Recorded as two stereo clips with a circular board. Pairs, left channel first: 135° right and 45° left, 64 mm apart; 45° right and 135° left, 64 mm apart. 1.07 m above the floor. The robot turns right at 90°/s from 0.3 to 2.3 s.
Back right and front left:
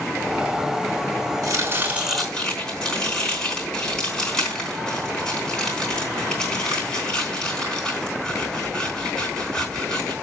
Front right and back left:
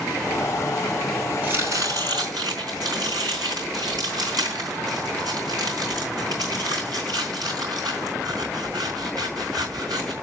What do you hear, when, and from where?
1.4 s chopping: 70° left, 4 m; by 10.1 s 150° left, 4 m